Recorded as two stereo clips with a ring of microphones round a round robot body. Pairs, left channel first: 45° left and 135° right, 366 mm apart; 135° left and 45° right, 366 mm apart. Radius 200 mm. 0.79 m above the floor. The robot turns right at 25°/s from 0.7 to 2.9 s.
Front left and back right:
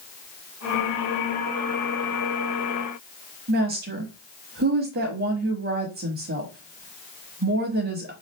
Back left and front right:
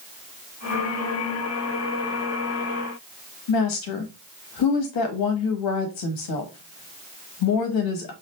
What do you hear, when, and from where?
3.5 s a woman speaking: 160° left, 1.0 m